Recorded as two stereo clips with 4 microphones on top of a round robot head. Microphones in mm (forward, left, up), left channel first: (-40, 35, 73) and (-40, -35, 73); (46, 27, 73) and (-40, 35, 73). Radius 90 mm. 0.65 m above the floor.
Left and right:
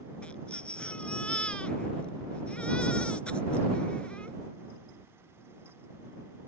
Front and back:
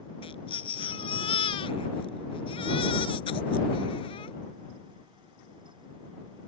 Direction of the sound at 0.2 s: 15° left.